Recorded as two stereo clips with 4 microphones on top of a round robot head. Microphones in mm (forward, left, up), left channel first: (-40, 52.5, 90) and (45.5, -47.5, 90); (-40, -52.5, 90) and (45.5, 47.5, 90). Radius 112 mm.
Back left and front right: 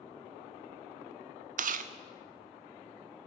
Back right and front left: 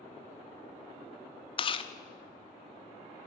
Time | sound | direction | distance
1.6 | chewing | 75° right | 0.9 m